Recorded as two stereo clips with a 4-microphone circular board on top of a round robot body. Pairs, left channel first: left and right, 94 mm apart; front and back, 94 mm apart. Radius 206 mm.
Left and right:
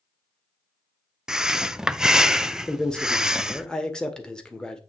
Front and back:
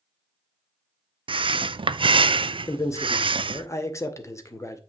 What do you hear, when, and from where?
1.3 s breathing: 175° right, 0.5 m
2.7 s a man speaking: 15° left, 1.4 m